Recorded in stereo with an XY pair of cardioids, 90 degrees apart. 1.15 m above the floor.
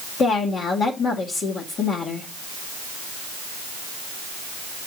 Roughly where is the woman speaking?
Ahead left.